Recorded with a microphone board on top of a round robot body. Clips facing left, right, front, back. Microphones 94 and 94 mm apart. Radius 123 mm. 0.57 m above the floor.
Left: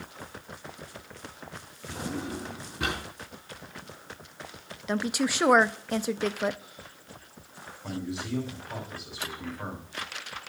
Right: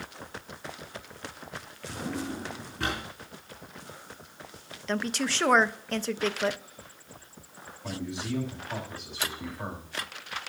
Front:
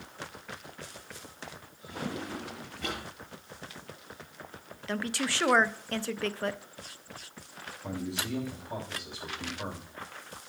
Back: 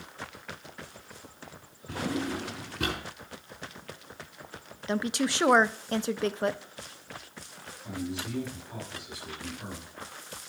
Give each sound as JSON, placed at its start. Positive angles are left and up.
{"t": 1.9, "sound": "a drawer", "azimuth_deg": 170, "distance_m": 4.5}
{"t": 4.9, "sound": "a woman speaking", "azimuth_deg": 150, "distance_m": 0.6}
{"t": 7.8, "sound": "a man speaking", "azimuth_deg": 5, "distance_m": 4.5}